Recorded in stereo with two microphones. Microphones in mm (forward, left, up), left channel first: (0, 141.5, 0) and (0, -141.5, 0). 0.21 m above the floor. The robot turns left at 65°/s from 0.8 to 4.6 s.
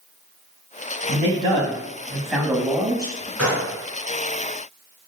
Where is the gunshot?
5° left (ahead or behind), 2 m; by 3.7 s 10° right (ahead or behind), 2 m.